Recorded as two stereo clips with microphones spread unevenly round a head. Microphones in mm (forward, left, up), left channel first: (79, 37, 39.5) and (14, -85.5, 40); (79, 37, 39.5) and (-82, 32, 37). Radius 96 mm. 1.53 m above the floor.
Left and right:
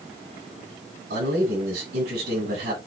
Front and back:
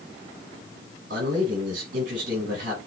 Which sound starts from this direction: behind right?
A man speaking, at 1.1 s.